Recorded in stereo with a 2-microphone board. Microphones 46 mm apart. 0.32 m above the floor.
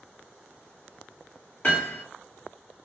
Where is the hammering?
35° left (ahead or behind), 1.8 m.